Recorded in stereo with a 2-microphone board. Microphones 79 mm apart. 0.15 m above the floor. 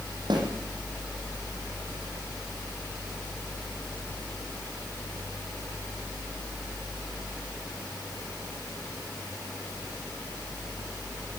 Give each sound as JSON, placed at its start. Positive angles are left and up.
{"t": 0.3, "sound": "a snare drum", "side_deg": -65, "distance_m": 7.5}